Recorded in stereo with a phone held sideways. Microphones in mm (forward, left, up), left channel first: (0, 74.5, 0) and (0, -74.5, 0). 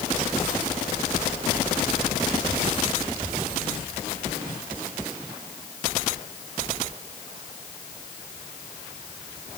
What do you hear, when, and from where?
Only background noise.